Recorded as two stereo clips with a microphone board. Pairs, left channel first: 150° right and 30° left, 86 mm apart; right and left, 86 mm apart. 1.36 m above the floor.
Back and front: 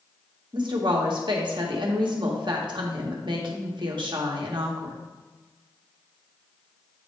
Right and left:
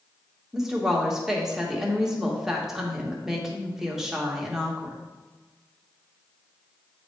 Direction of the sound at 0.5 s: 5° left.